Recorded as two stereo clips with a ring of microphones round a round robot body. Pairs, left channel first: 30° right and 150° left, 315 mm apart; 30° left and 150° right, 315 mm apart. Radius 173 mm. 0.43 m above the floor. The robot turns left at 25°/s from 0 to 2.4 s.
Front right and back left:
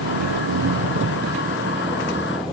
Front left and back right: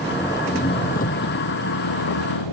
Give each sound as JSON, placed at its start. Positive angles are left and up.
{"t": 0.0, "sound": "an engine running", "azimuth_deg": 120}